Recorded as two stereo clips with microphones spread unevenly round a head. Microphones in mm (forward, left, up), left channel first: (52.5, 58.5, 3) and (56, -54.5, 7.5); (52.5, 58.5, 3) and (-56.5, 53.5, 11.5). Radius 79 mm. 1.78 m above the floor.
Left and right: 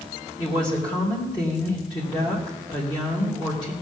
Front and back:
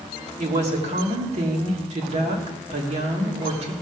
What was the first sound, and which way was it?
A woman speaking, 155° left.